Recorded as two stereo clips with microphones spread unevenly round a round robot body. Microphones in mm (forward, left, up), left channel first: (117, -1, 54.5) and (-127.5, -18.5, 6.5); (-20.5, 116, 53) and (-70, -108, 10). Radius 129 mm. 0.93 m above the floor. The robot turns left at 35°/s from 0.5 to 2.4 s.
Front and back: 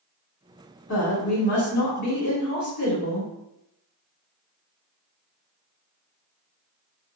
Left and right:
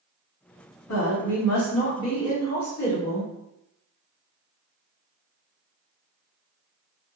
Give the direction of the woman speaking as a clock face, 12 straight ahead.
11 o'clock.